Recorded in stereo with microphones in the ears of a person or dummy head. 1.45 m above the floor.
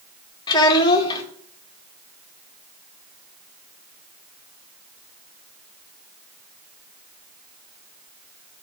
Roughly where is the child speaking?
Left.